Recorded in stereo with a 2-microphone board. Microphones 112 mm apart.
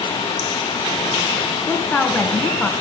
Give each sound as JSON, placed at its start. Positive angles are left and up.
{"t": 1.7, "sound": "a woman speaking", "side_deg": 5, "distance_m": 2.5}